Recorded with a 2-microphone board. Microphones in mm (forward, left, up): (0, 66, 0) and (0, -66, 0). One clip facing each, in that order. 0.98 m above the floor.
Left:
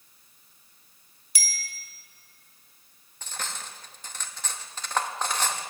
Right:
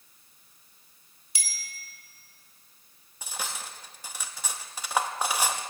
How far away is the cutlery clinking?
About 0.8 m.